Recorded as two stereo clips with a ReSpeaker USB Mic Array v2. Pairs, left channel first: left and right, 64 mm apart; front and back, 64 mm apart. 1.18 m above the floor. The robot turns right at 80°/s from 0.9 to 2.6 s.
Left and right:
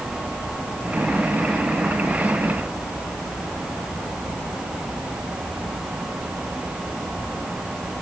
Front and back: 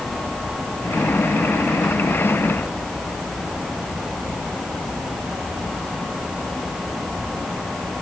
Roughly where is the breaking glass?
No breaking glass in this recording.